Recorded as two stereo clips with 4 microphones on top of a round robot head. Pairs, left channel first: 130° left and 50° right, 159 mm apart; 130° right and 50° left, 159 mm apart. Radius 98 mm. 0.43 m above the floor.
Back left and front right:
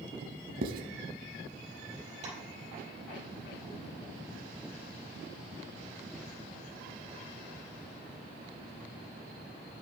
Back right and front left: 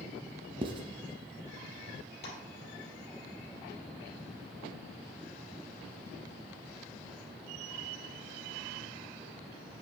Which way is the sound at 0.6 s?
10° right.